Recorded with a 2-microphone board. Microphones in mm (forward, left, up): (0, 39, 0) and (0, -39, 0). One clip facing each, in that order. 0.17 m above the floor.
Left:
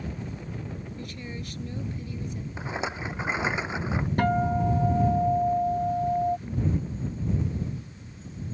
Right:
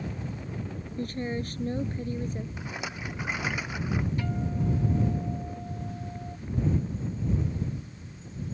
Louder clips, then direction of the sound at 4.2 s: Left 8 dB; 55° left (ahead or behind).